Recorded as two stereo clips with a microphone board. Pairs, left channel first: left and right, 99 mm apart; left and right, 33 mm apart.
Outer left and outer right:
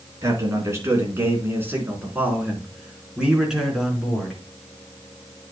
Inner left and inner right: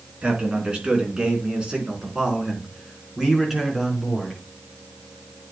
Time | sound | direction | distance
0.2 | a man speaking | 35° right (ahead or behind) | 4 m